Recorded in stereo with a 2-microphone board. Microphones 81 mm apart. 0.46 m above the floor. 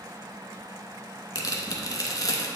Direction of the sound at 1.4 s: 50° left (ahead or behind).